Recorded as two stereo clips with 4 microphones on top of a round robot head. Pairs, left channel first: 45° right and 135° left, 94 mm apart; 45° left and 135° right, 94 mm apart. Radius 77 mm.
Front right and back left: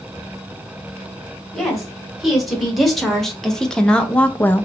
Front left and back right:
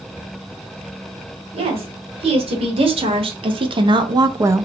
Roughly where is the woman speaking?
Behind right.